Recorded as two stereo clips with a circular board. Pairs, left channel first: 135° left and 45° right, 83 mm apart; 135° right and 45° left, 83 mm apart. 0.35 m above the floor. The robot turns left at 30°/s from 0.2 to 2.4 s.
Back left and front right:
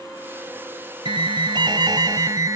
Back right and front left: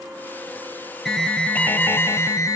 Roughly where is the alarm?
Ahead right.